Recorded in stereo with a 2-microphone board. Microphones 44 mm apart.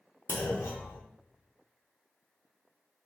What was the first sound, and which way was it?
A clunk, 85° left.